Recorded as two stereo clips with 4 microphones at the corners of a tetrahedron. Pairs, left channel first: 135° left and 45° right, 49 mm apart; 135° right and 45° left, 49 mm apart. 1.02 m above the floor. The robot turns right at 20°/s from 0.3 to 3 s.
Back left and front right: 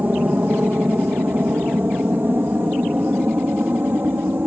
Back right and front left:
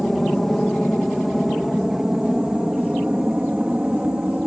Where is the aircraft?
50° right; by 4.5 s 15° right.